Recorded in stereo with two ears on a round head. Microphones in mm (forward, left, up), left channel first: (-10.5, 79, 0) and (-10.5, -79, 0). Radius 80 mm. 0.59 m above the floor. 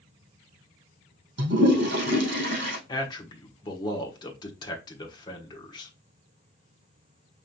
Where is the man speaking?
25° left (ahead or behind), 1.2 m.